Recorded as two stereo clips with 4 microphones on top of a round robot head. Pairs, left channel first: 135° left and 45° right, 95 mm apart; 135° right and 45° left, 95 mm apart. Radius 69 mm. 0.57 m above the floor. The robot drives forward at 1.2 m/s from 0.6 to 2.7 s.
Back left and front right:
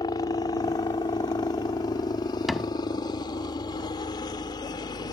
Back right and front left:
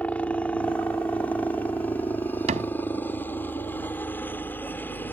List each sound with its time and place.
0.0 s a helicopter: 155° left; by 5.1 s 160° left
2.5 s a cupboard door: 45° left